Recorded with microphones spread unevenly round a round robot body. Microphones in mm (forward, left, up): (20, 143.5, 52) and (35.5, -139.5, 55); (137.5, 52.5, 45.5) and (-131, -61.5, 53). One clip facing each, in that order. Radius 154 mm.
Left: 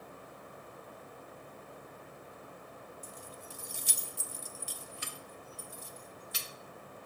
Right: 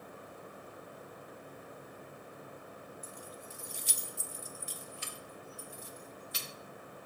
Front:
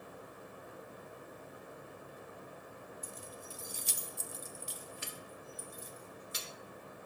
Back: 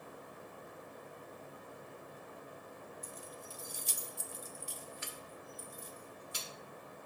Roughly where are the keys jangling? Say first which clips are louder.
Right 1 dB, front 1 dB; ahead.